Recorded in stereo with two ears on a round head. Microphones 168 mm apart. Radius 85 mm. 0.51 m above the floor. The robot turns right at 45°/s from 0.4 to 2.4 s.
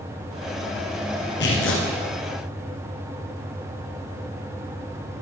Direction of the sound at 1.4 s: 65° left (ahead or behind).